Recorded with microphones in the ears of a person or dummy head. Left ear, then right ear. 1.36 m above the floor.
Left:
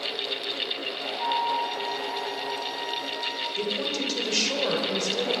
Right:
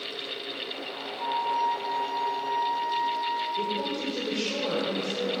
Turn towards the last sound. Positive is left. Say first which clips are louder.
# left 1 dB
turn(degrees=50)  # may be behind; listen again after turning